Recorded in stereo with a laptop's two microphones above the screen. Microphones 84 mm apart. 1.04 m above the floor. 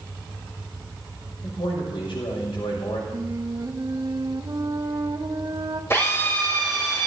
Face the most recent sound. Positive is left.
turn(degrees=30)  # may be behind; listen again after turning